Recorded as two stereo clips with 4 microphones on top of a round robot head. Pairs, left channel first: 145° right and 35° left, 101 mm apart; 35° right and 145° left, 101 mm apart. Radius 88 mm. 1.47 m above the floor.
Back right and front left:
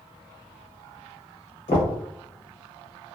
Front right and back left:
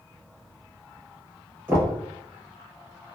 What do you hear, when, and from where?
1.7 s knocking: 150° right, 0.8 m